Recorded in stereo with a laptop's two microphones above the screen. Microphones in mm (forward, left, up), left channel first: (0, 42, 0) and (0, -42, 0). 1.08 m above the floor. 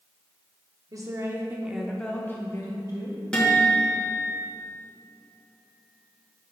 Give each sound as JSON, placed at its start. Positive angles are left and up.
{"t": 0.9, "sound": "a woman speaking", "side_deg": -45, "distance_m": 0.9}
{"t": 3.3, "sound": "a guitar", "side_deg": 10, "distance_m": 1.8}